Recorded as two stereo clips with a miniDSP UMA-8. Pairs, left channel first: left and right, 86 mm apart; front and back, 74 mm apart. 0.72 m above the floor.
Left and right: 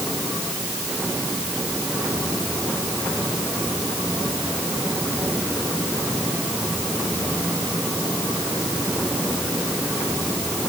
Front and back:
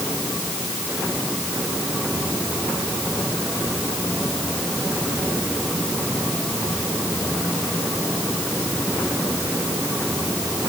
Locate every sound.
Only background noise.